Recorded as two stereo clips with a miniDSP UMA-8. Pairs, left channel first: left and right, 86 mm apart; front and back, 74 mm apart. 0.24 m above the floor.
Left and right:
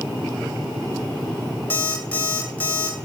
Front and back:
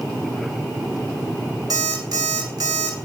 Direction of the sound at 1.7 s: 160° left.